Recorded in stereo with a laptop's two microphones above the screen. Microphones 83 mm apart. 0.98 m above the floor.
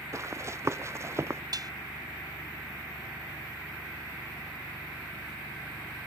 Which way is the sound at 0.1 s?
35° right (ahead or behind).